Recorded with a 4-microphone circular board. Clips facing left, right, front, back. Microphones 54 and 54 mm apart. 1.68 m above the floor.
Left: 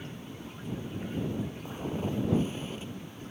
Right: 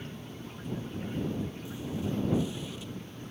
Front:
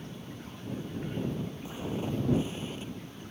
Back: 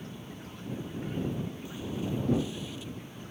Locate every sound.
1.6 s footsteps: 60° left; by 2.9 s 45° left